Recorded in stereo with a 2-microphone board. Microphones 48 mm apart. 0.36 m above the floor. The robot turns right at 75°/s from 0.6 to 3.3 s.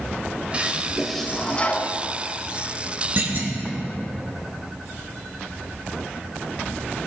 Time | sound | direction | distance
0.5 | a toilet flushing | 40° right | 1.1 m
3.2 | a clunk | 50° right (ahead or behind) | 2 m